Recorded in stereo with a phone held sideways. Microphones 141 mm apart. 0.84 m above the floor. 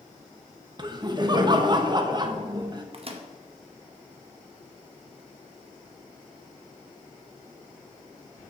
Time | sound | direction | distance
0.8 | laughter | 30° right (ahead or behind) | 0.5 m
2.9 | a microwave | 45° right (ahead or behind) | 0.5 m